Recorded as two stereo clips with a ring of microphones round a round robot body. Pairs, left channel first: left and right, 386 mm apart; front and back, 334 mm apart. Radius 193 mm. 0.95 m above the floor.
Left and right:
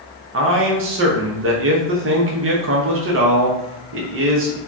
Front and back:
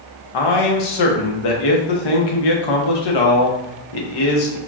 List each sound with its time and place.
0.3 s a man speaking: 30° right, 0.6 m